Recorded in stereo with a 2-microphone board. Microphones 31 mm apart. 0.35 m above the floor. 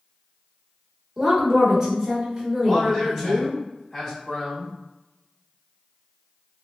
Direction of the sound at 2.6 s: 5° left (ahead or behind).